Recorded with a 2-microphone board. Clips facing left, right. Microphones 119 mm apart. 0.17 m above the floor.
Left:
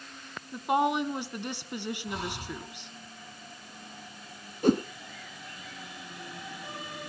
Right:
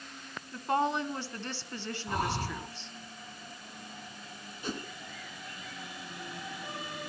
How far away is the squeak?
I don't hear a squeak.